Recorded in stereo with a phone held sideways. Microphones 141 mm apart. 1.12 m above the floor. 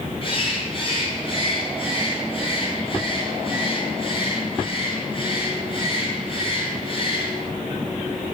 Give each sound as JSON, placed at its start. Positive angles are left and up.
{"t": 0.2, "sound": "a bird", "side_deg": 40, "distance_m": 4.0}